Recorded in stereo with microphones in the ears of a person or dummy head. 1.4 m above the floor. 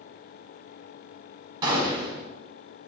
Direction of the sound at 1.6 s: 25° right (ahead or behind).